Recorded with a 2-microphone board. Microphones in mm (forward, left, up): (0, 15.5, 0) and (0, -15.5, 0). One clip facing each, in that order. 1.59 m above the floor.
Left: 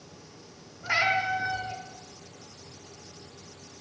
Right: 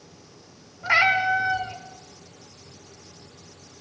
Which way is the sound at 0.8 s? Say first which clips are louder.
Right 6 dB; 25° right (ahead or behind).